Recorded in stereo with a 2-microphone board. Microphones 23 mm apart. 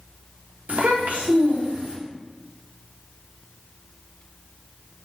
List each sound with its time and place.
0.7 s a child speaking: 70° right (ahead or behind), 1.0 m; by 2.0 s 60° right (ahead or behind), 1.3 m